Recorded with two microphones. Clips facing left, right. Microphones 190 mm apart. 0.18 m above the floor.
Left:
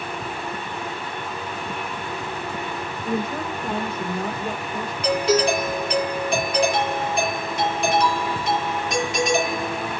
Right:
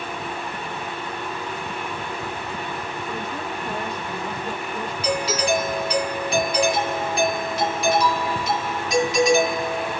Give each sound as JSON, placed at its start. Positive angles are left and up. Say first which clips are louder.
{"t": 3.0, "sound": "a woman speaking", "louder": "left 8 dB", "side_deg": 60, "distance_m": 5.0}
{"t": 5.0, "sound": "a doorbell", "louder": "left 4 dB", "side_deg": 50, "distance_m": 5.0}